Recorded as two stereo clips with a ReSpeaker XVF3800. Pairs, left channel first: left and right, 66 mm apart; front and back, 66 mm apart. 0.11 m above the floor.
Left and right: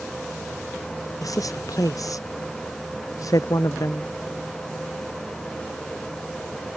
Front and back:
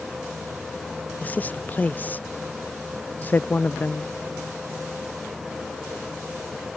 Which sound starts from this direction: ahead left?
A woman speaking, at 1.2 s.